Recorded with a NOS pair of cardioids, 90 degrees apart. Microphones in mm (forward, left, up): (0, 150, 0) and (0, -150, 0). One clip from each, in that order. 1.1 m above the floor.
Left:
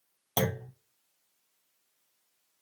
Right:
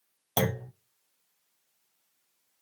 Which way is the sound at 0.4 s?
5° right.